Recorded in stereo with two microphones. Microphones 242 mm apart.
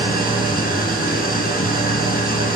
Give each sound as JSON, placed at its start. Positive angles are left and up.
{"t": 0.0, "sound": "an engine running", "side_deg": 40, "distance_m": 2.5}